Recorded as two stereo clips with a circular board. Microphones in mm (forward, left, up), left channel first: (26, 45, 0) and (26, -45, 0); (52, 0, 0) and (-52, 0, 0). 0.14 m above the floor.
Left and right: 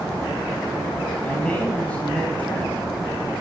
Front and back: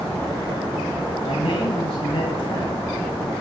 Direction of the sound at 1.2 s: 15° left.